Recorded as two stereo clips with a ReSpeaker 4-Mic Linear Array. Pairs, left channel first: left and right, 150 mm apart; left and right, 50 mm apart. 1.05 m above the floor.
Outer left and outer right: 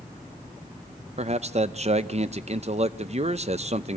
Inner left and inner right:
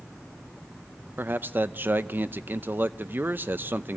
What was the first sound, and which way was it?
A man speaking, 45° right (ahead or behind).